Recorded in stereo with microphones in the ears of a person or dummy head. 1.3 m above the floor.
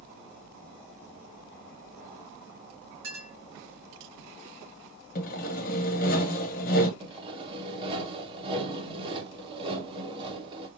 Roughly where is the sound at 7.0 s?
Right.